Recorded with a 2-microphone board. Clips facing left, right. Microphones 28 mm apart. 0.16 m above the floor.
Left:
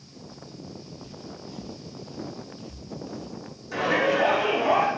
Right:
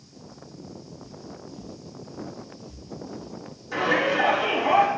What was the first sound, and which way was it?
Footsteps, 80° left.